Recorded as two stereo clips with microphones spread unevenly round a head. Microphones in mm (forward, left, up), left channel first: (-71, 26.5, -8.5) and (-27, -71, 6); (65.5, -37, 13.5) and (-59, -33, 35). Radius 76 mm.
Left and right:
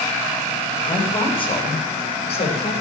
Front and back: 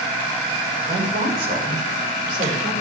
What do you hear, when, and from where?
0.8 s a woman speaking: 160° left, 7 m; by 2.7 s 140° left, 6.5 m